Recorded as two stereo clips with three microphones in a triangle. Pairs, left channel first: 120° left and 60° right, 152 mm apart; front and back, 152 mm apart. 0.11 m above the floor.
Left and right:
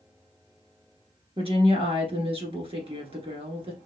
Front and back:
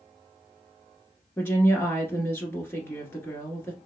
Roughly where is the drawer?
I don't hear a drawer.